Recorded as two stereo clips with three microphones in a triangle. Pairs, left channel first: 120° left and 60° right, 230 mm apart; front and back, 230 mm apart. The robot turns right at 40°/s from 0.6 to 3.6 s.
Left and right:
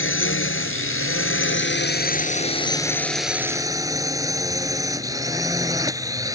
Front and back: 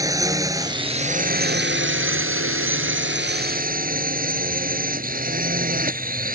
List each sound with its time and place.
0.0 s a drone: 105° left; by 6.3 s 135° right